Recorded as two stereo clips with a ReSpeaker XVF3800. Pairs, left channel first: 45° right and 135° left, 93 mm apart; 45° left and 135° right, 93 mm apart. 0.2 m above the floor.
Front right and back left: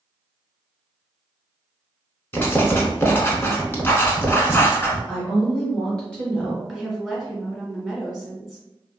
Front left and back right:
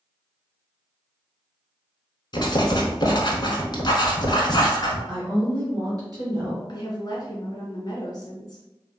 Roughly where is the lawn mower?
I don't hear a lawn mower.